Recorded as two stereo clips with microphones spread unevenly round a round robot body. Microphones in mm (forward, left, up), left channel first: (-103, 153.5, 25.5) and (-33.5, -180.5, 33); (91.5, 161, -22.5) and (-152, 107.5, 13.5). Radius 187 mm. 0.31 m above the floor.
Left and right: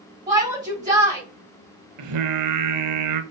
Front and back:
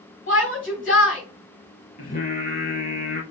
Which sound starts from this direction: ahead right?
Singing, at 2.0 s.